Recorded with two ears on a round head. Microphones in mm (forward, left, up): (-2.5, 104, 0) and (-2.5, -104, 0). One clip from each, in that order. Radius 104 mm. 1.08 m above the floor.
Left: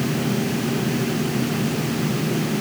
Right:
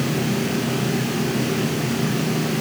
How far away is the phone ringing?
No phone ringing in this recording.